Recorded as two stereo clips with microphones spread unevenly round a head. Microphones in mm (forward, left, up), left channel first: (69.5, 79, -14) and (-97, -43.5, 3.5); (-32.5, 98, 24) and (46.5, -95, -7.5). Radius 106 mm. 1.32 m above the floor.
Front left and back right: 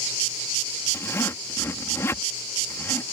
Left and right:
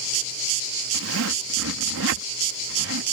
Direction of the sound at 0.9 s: 45° right.